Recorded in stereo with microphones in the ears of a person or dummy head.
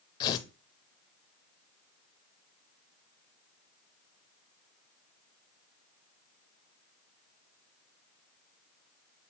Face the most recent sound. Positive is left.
turn(degrees=20)  # may be behind; listen again after turning